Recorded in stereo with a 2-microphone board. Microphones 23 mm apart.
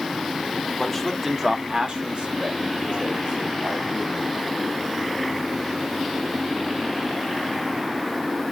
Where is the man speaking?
15° left (ahead or behind), 0.7 m; by 4.3 s 75° right (ahead or behind), 2 m.